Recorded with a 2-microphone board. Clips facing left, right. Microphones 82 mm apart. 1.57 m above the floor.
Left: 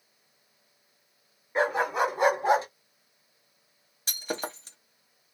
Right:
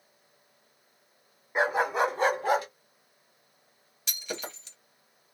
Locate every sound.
1.6 s a dog barking: 15° right (ahead or behind), 1.5 m; by 2.7 s 30° left (ahead or behind), 1.2 m
4.1 s breaking glass: 40° left (ahead or behind), 1.0 m